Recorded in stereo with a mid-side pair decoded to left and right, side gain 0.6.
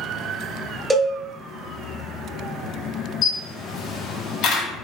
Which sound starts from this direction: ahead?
A cowbell, at 0.9 s.